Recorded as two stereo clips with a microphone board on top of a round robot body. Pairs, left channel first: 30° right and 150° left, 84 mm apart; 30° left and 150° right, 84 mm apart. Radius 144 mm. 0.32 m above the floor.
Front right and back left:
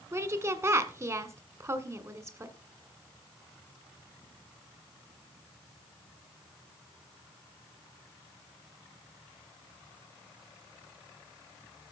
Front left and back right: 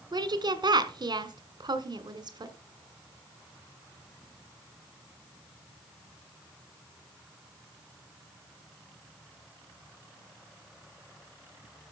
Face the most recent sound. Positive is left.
turn(degrees=-160)